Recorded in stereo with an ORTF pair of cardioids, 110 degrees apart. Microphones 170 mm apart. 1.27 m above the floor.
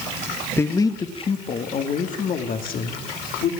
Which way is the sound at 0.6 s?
10° left.